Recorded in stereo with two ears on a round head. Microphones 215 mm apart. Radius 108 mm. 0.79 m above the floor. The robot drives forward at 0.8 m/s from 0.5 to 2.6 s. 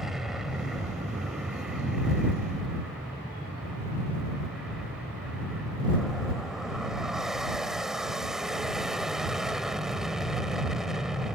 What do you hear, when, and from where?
0.0 s an aircraft: centre (ahead or behind)